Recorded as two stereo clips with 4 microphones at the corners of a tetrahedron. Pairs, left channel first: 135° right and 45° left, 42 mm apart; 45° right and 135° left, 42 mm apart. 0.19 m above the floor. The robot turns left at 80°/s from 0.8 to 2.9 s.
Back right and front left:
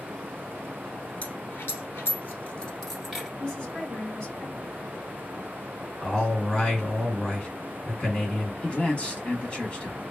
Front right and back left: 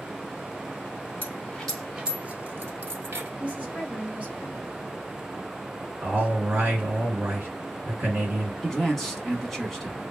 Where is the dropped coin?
90° right, 1.3 m; by 3.3 s 135° left, 1.3 m.